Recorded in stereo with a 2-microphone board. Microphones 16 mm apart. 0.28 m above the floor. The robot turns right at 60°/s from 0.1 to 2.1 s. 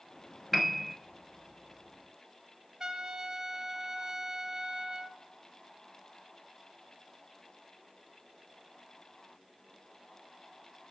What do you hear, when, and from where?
0.5 s a piano: 10° left (ahead or behind), 1.1 m; by 0.9 s 15° right (ahead or behind), 1.1 m
2.8 s a trumpet: 45° right (ahead or behind), 0.8 m